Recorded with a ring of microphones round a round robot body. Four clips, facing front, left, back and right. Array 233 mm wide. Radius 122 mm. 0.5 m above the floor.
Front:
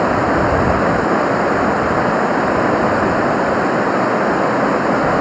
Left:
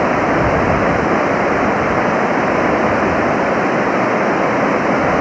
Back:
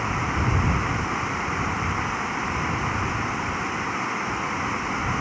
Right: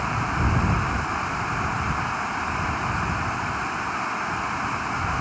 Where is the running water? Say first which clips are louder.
Left 12 dB, front 12 dB; 50° left.